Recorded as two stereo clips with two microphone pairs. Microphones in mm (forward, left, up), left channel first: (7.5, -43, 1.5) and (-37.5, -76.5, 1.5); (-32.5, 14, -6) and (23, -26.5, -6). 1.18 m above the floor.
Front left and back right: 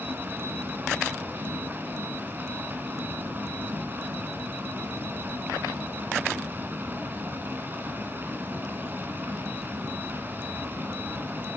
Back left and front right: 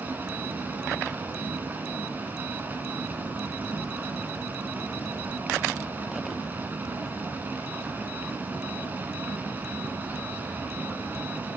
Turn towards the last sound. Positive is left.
turn(degrees=-95)